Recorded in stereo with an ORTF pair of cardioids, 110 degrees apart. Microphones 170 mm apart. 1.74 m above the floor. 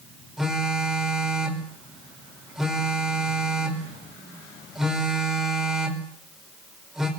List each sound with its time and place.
0.4 s a phone buzzing: 5° right, 5 m